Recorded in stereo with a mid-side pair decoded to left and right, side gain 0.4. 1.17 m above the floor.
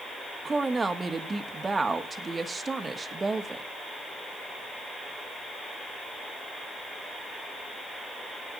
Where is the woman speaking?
30° right, 1.5 m.